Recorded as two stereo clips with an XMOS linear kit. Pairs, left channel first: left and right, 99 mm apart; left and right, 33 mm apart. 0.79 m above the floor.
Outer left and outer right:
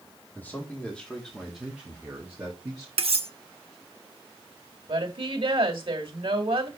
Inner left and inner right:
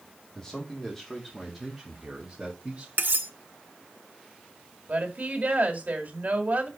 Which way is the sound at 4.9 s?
60° right (ahead or behind).